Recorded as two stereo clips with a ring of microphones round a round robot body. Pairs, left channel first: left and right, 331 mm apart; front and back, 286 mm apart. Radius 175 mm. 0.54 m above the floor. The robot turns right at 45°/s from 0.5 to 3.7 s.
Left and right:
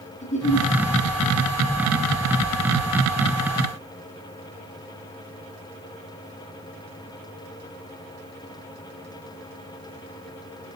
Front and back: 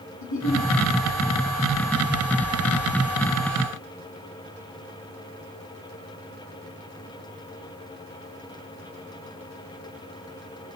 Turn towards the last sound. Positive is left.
turn(degrees=165)